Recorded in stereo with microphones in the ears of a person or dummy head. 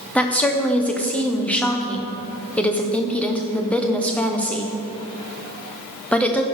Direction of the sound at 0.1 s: 10° left (ahead or behind).